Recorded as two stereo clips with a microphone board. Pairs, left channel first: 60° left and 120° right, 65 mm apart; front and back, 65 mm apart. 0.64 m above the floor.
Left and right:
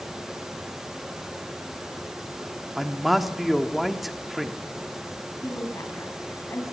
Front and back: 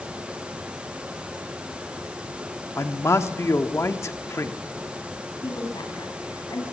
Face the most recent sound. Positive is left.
turn(degrees=10)